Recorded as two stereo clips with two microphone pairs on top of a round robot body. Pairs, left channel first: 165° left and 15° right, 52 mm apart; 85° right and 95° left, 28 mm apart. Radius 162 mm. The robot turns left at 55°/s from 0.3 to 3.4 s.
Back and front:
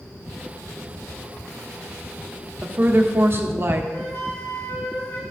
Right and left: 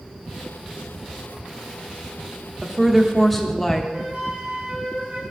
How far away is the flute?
About 2 m.